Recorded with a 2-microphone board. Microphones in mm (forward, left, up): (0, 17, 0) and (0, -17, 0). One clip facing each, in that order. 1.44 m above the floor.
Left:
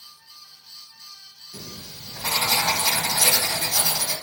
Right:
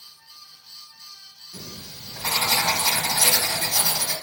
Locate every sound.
1.5 s writing: 10° right (ahead or behind), 1.8 m